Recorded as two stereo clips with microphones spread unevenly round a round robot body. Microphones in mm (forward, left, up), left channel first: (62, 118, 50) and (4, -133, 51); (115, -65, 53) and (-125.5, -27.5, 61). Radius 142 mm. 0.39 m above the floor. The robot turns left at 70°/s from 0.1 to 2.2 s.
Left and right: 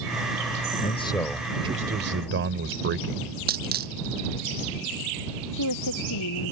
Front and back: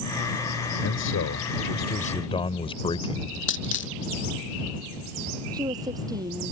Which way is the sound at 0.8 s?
25° left.